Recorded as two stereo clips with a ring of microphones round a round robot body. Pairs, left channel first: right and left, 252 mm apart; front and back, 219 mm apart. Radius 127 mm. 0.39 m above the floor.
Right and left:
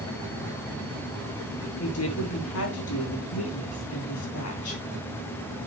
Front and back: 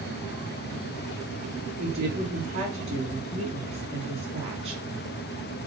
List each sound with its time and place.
1.8 s a woman speaking: 115° right, 4 m